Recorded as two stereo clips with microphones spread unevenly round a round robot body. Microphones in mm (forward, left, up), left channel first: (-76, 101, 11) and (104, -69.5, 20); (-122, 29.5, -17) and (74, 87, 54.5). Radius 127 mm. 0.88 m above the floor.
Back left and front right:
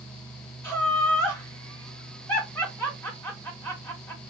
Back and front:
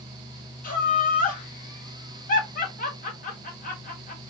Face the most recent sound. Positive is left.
turn(degrees=-145)